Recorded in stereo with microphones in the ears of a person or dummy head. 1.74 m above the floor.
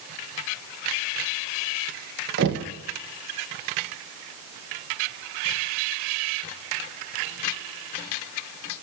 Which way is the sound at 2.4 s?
55° right (ahead or behind).